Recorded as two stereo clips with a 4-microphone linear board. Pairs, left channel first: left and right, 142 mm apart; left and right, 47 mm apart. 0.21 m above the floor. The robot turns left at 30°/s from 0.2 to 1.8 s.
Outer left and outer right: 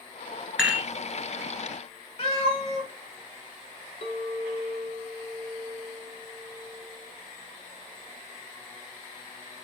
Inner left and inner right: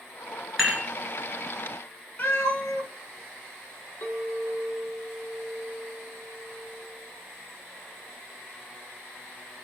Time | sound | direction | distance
0.6 | dishes clattering | 5° right (ahead or behind) | 1.9 m
2.2 | a cat meowing | 45° left (ahead or behind) | 1.0 m
4.0 | a clink | 60° left (ahead or behind) | 1.1 m